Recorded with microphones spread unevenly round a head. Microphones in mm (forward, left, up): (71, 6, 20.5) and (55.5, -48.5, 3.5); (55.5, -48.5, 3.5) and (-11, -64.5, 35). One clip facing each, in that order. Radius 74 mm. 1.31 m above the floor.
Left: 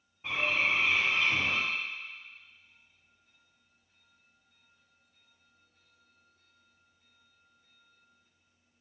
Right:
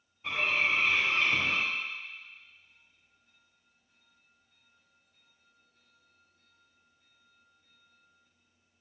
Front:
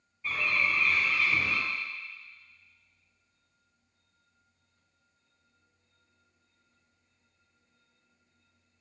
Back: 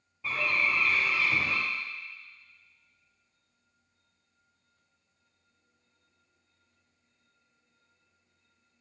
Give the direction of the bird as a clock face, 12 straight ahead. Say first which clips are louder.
Even, back 1 dB; 7 o'clock.